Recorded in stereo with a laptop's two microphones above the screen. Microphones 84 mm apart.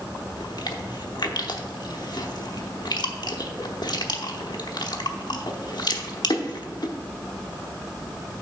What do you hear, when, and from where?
0.4 s chewing: 60° left (ahead or behind), 0.9 m